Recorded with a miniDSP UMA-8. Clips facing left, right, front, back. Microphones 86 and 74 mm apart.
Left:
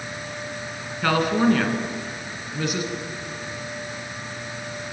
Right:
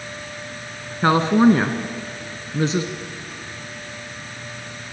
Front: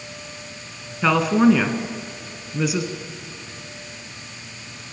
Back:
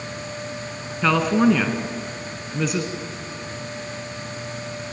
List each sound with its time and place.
1.0 s a woman speaking: 80° right, 1.7 m